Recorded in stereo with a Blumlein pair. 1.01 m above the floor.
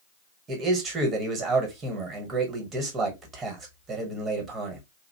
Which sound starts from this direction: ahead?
A man speaking, at 0.5 s.